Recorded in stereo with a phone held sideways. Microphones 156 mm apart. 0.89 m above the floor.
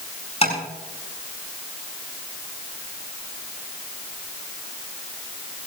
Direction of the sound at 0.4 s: 40° left (ahead or behind).